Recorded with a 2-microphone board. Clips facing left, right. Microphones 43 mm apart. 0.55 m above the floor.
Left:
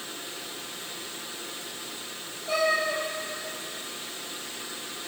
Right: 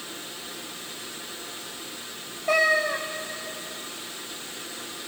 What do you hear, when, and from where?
2.5 s a cat meowing: 75° right (ahead or behind), 0.9 m